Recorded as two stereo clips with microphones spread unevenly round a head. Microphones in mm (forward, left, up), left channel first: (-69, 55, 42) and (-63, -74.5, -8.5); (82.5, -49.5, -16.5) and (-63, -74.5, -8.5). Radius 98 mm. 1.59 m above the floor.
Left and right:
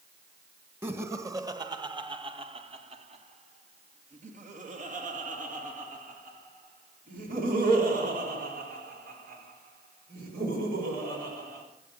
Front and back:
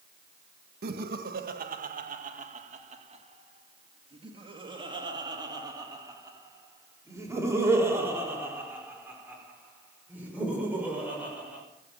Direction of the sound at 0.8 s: 165° right.